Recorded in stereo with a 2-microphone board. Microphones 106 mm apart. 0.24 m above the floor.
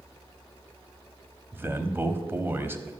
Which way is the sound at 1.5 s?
20° right (ahead or behind).